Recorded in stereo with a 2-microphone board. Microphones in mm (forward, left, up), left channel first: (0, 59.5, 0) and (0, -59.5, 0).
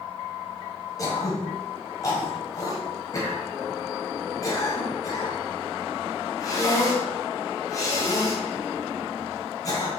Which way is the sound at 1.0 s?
30° left (ahead or behind).